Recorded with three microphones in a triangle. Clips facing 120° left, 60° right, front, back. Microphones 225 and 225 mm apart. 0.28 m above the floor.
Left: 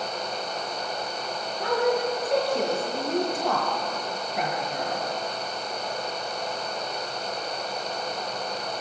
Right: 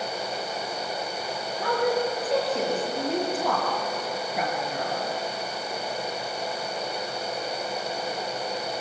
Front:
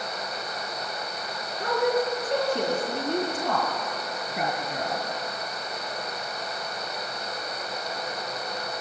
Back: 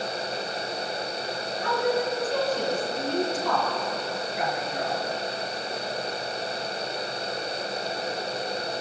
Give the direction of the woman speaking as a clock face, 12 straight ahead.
11 o'clock.